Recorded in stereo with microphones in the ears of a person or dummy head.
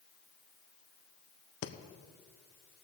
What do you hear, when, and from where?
1.6 s breathing: 55° left (ahead or behind), 1.0 m